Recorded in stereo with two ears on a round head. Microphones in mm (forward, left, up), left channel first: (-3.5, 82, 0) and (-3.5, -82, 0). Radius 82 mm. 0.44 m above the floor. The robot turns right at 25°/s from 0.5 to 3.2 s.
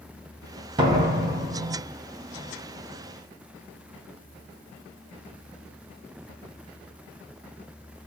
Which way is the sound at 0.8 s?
25° right (ahead or behind).